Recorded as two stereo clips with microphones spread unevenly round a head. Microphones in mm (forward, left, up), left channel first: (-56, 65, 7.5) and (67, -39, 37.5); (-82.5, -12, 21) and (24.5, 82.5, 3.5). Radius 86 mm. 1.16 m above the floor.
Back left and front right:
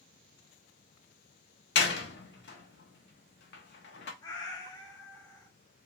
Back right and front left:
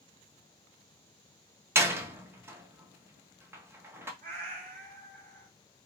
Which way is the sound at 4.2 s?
70° left.